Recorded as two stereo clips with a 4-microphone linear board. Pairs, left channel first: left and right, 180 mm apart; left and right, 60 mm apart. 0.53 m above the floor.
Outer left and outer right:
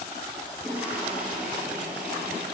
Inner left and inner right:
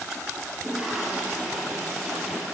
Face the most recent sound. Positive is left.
turn(degrees=-10)  # may be behind; listen again after turning